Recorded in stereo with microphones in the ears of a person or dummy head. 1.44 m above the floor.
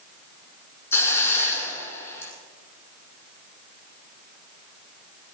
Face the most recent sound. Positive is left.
turn(degrees=15)  # may be behind; listen again after turning